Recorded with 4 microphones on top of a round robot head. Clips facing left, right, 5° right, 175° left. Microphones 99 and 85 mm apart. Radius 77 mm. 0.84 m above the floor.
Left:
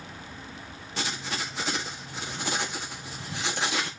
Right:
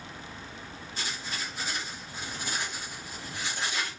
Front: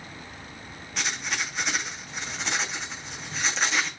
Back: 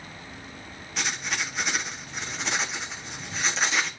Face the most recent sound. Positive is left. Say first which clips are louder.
# left 5 dB, even
turn(degrees=85)